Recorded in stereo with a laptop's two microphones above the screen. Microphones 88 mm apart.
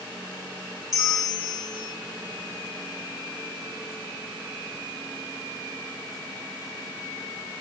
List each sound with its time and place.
0.9 s a bell: 40° left (ahead or behind), 4 m